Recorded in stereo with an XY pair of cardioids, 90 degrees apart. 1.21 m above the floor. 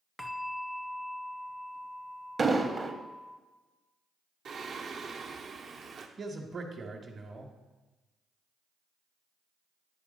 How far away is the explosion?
About 1.0 m.